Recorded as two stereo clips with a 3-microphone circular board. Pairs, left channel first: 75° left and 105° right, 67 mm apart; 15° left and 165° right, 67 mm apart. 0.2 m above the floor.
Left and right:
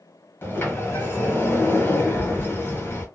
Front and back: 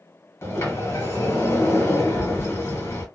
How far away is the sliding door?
About 1.5 m.